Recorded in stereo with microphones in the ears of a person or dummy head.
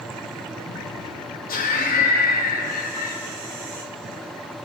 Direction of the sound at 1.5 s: 45° left (ahead or behind).